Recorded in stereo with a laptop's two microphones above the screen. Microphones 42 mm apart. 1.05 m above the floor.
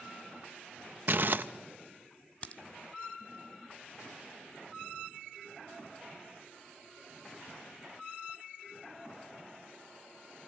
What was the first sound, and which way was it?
Crumpling, 50° right (ahead or behind).